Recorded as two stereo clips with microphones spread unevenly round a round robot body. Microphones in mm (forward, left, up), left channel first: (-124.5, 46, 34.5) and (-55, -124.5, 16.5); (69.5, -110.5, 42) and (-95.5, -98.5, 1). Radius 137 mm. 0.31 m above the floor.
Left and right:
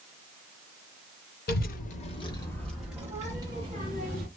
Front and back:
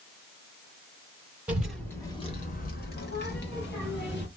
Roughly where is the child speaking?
Left.